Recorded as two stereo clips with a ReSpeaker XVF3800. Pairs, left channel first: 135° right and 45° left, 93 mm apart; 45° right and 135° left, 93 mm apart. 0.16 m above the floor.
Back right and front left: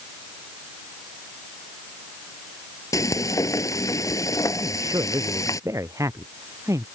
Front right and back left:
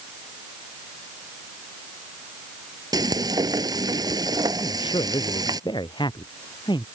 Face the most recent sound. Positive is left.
turn(degrees=-10)